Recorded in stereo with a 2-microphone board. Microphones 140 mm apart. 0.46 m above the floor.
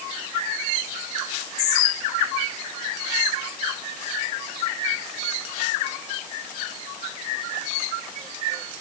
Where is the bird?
No bird in this recording.